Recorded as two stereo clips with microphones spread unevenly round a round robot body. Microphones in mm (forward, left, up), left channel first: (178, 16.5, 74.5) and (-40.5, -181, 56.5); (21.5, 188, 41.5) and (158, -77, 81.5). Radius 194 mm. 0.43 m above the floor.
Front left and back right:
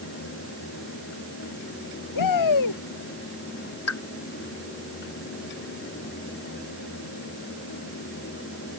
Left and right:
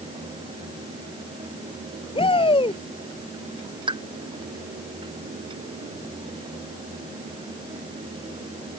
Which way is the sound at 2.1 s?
45° left.